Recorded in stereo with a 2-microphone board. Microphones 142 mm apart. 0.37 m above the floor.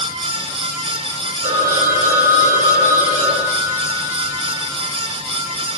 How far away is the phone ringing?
About 8.5 m.